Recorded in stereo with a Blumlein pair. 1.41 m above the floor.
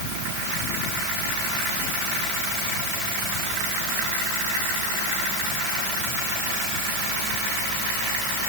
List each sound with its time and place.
Only background noise.